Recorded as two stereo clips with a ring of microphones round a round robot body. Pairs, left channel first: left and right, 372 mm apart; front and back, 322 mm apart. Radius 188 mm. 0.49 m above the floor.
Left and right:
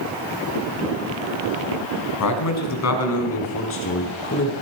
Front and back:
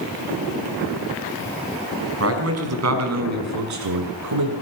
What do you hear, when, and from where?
2.2 s a man speaking: 135° left, 4 m; by 4.5 s 150° left, 5.5 m